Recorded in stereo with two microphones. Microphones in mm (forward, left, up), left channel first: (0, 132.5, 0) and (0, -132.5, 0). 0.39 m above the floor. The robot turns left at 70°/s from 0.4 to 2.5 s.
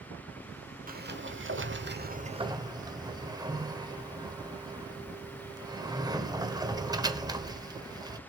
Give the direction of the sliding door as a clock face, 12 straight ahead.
2 o'clock.